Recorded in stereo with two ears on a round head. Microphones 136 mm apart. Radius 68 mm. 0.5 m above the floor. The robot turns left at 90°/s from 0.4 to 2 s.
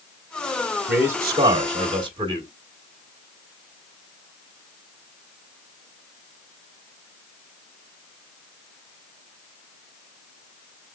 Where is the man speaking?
10° right, 1.4 m; by 2.5 s 115° right, 1.4 m.